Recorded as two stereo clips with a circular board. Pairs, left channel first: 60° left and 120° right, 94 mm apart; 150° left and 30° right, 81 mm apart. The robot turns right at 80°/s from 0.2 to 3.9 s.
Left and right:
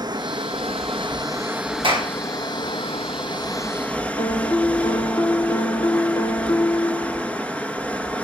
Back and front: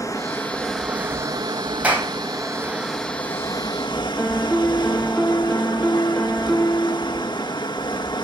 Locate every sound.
0.0 s running water: 160° right, 1.7 m; by 8.2 s 135° left, 1.7 m
1.8 s a clap: 100° right, 3.5 m; by 2.1 s 80° right, 3.5 m
4.2 s a piano: 85° left, 1.2 m